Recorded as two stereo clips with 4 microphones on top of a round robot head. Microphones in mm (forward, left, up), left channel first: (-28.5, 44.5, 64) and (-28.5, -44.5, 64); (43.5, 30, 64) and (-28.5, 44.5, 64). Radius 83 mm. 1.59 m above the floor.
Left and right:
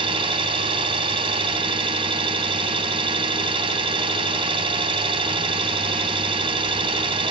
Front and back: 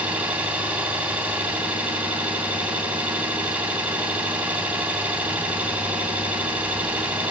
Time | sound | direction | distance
0.0 | an engine running | 115° right | 2.5 m